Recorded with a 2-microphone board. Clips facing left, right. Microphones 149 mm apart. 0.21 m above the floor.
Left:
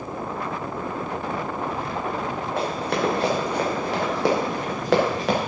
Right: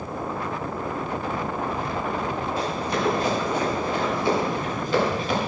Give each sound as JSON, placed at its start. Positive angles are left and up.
{"t": 2.6, "sound": "running footsteps", "side_deg": 60, "distance_m": 4.0}